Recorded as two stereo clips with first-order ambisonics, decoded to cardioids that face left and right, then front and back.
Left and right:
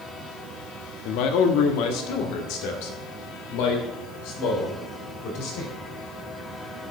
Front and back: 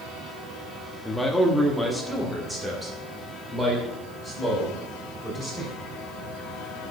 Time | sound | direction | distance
1.1 | a man speaking | 85° left | 1.1 m